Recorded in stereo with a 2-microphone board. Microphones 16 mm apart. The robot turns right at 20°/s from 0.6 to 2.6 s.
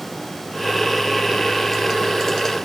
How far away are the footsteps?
I don't hear footsteps.